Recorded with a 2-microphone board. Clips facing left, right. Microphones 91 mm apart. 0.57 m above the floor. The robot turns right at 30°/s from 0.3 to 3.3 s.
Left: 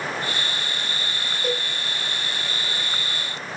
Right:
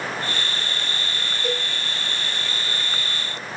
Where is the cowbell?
15° left (ahead or behind), 1.0 m.